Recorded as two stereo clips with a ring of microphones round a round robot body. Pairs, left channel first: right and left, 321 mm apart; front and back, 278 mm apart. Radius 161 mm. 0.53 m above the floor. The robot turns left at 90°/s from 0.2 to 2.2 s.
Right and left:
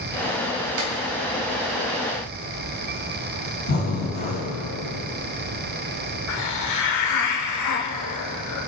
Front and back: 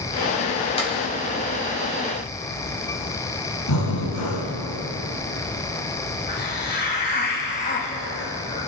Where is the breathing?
30° right, 3.5 m.